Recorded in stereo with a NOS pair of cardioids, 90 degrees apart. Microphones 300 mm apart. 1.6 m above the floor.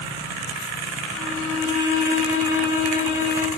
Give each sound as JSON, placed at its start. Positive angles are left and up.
{"t": 1.1, "sound": "a violin", "azimuth_deg": 40, "distance_m": 6.5}